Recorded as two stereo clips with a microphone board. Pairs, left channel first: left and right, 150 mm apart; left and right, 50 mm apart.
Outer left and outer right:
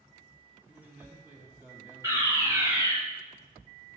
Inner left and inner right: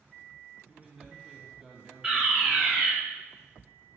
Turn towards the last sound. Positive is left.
turn(degrees=-20)  # may be behind; listen again after turning